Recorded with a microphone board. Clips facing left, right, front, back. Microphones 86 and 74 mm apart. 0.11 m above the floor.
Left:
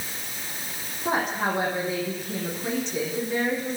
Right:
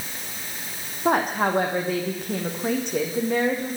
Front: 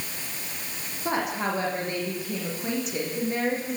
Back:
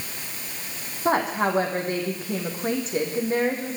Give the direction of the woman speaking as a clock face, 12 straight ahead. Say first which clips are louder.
Right 4 dB, back 5 dB; 4 o'clock.